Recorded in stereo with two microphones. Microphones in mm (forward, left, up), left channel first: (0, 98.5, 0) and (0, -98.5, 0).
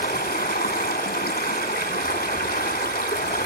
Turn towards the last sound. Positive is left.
turn(degrees=50)  # may be behind; listen again after turning